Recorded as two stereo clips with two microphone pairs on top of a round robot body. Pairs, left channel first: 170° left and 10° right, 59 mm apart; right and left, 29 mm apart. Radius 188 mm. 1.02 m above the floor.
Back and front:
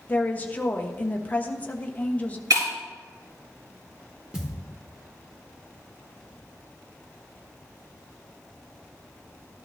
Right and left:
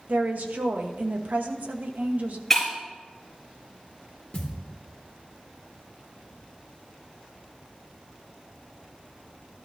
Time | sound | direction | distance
0.1 | a woman speaking | 105° left | 1.3 m
2.5 | breaking glass | 5° right | 5 m
4.3 | a thud | 85° right | 0.8 m